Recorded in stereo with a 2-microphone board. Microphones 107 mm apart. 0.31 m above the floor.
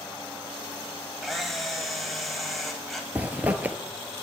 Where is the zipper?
15° right (ahead or behind), 1.0 m.